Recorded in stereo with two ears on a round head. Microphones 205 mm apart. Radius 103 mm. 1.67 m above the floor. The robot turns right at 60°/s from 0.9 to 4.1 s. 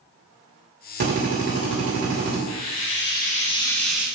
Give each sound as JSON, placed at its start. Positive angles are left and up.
{"t": 1.0, "sound": "a drill", "azimuth_deg": -120, "distance_m": 3.0}
{"t": 2.5, "sound": "frying", "azimuth_deg": 95, "distance_m": 1.4}